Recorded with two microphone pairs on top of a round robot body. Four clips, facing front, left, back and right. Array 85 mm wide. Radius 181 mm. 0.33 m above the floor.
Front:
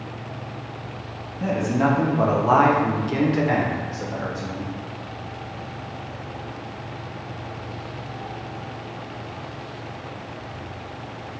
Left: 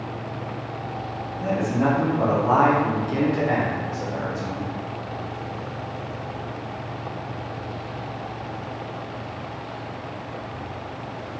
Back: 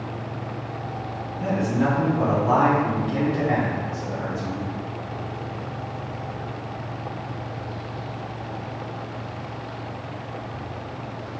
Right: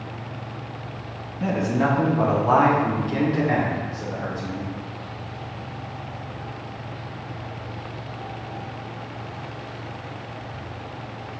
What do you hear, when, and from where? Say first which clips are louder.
1.4 s a man speaking: even, front 2 dB; 60° right, 1.2 m; by 4.7 s 25° left, 1.9 m